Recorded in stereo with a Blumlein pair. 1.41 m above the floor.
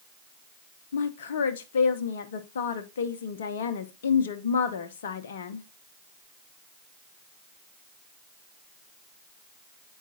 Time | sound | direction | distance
0.9 | a woman speaking | 60° left | 0.6 m